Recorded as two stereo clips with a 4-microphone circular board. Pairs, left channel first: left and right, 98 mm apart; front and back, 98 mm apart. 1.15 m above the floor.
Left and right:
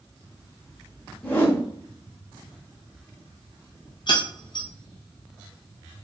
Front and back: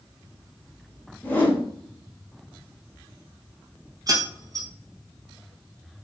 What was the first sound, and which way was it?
A whoosh, 45° left.